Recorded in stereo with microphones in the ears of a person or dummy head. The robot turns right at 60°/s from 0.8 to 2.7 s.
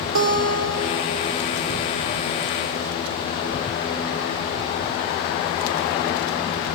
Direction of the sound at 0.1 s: 105° right.